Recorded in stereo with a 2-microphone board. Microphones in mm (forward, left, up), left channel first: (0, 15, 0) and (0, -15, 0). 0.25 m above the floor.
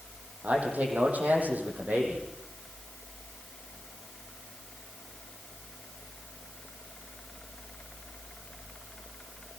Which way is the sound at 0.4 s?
60° right (ahead or behind).